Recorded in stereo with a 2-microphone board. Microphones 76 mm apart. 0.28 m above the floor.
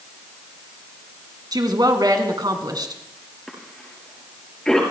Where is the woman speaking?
60° right (ahead or behind), 2.5 m.